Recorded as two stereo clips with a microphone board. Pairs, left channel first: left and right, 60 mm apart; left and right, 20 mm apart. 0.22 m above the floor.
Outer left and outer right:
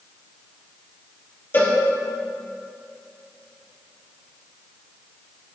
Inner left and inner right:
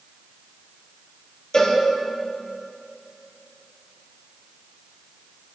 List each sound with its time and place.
1.5 s a cowbell: 35° left (ahead or behind), 5 m